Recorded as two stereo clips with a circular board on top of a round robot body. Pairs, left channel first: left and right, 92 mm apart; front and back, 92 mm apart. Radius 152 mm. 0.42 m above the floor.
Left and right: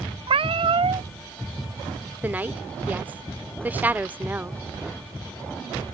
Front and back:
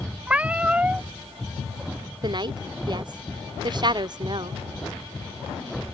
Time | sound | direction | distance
0.3 | a cat meowing | 100° right | ?
2.2 | a woman speaking | 160° right | ?